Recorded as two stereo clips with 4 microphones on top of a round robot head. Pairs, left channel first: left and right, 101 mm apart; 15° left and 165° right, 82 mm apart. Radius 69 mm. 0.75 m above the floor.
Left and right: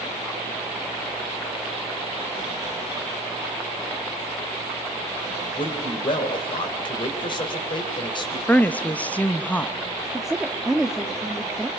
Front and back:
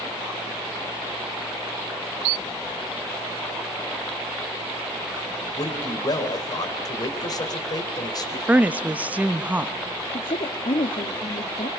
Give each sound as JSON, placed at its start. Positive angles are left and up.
{"t": 5.6, "sound": "a man speaking", "azimuth_deg": 50, "distance_m": 3.5}
{"t": 8.5, "sound": "a woman speaking", "azimuth_deg": 145, "distance_m": 1.0}
{"t": 10.1, "sound": "a woman speaking", "azimuth_deg": -5, "distance_m": 1.2}